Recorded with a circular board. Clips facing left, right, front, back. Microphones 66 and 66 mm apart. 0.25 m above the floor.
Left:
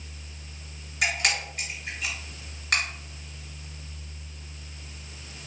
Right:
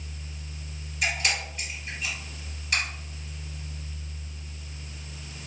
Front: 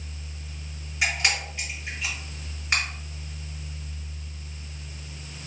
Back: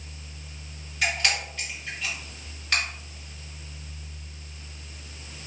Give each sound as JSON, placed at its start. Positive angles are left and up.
{"t": 1.0, "sound": "a camera shutter", "azimuth_deg": 70, "distance_m": 1.6}